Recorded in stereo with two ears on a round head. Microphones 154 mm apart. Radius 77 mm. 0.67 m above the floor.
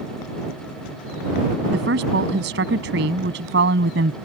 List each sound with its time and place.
1.7 s a woman speaking: 70° right (ahead or behind)